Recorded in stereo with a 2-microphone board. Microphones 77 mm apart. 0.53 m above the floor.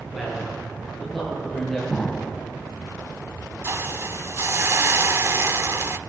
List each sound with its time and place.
0.1 s a man speaking: centre (ahead or behind), 9 m; by 1.8 s 5° left (ahead or behind), 10.5 m
1.9 s an explosion: 15° left (ahead or behind), 1.2 m
3.6 s a hiss: 35° right (ahead or behind), 0.6 m